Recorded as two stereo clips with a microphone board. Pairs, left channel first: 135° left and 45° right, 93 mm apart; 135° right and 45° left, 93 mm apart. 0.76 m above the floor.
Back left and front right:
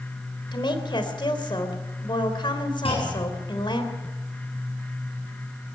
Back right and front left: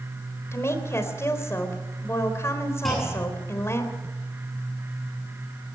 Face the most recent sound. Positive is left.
turn(degrees=135)